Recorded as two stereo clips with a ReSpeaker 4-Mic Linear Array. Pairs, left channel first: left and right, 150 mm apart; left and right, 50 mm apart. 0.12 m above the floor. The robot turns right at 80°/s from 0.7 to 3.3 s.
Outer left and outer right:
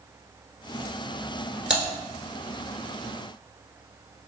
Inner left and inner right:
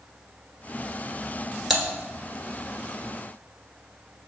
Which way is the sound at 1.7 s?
5° right (ahead or behind).